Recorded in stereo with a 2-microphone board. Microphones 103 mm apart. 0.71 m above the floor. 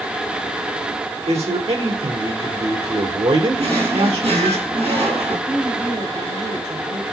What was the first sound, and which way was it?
A man speaking, 70° right (ahead or behind).